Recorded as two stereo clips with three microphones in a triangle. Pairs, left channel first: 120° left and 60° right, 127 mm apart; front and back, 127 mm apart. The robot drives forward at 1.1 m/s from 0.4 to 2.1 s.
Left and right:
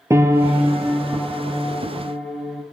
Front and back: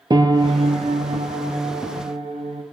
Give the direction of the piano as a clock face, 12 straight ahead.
4 o'clock.